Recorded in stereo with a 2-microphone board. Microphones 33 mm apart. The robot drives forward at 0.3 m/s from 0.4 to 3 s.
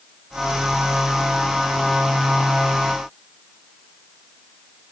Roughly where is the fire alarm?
I don't hear a fire alarm.